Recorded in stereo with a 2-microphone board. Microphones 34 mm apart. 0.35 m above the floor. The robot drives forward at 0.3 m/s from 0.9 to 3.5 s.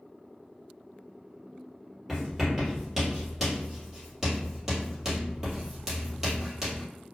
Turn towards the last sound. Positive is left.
turn(degrees=-10)  # may be behind; listen again after turning